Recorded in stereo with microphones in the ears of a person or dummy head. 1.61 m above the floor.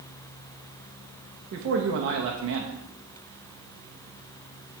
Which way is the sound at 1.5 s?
60° right (ahead or behind).